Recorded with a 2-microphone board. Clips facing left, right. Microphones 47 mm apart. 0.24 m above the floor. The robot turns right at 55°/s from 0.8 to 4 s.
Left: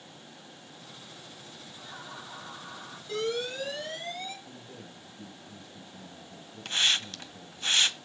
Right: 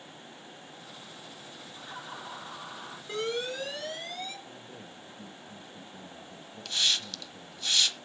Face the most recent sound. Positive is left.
turn(degrees=35)  # may be behind; listen again after turning